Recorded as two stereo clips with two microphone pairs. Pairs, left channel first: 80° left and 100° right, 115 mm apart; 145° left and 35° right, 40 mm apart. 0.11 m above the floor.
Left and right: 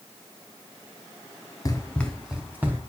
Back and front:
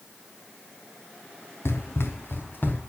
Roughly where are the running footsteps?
Behind left.